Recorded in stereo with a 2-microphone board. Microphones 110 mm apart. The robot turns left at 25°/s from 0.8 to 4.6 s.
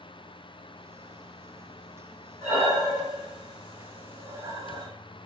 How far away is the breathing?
About 1.2 m.